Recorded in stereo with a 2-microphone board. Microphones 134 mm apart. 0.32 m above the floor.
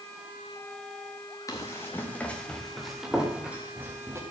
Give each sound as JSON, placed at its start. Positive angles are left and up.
{"t": 1.5, "sound": "running footsteps", "side_deg": 25, "distance_m": 4.5}